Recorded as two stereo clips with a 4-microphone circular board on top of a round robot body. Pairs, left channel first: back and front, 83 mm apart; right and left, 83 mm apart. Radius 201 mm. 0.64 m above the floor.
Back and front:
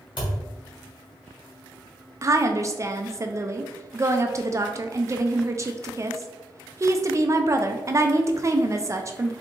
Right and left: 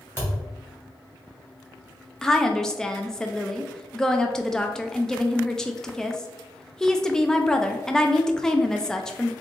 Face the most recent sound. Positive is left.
turn(degrees=-15)